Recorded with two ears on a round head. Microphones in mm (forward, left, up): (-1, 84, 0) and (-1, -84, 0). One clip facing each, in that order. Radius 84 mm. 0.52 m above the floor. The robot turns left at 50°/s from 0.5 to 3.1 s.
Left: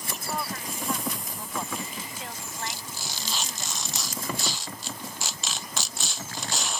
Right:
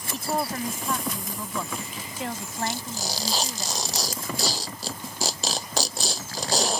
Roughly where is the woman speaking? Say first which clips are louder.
Right 6 dB; ahead right.